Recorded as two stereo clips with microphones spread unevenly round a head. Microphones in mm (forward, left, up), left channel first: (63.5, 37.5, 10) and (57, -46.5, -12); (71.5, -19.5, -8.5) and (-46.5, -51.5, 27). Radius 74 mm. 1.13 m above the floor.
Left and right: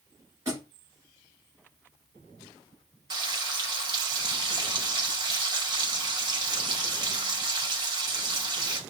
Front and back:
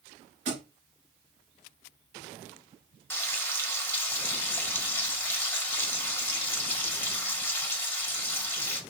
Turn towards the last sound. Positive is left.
turn(degrees=-60)